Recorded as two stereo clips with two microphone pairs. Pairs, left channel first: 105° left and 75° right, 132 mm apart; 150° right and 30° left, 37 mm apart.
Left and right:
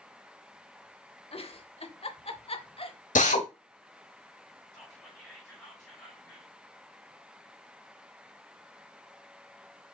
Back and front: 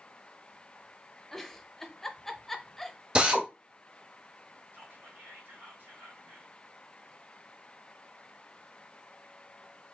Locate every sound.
1.3 s a giggle: 130° left, 0.6 m
3.1 s a drill: 95° left, 1.1 m
4.7 s whispering: 40° left, 3 m